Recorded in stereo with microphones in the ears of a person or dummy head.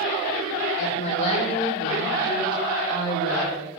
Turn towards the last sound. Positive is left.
turn(degrees=20)  # may be behind; listen again after turning